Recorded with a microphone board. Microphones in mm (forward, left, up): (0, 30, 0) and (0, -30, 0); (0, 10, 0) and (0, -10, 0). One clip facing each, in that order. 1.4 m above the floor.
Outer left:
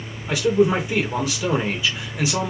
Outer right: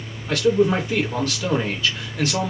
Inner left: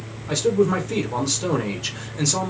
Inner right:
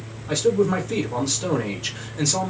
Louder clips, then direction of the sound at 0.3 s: Even, even; 10° left (ahead or behind).